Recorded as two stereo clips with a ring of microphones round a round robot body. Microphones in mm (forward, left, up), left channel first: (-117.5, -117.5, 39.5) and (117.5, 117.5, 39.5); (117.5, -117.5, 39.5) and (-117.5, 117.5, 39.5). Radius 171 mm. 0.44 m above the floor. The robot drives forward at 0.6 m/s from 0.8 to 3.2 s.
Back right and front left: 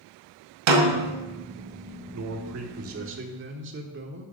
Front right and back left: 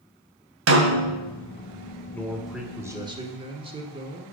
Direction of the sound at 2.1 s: 40° left.